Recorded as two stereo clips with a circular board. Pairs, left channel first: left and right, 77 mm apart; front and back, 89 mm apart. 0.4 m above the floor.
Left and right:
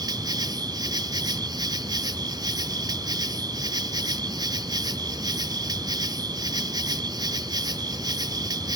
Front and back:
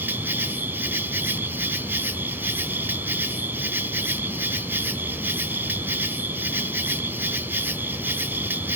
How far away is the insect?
About 0.9 m.